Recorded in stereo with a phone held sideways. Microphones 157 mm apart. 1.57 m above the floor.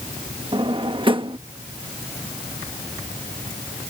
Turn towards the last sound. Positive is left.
turn(degrees=-35)  # may be behind; listen again after turning